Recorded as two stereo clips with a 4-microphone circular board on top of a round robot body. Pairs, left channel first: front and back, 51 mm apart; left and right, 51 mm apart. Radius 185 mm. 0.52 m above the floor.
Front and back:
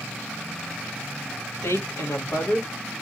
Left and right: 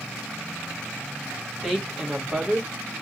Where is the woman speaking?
Straight ahead, 3 m; by 2.7 s 10° right, 3 m.